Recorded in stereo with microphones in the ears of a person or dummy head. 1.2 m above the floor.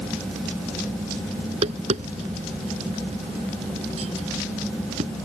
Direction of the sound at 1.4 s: 45° right (ahead or behind).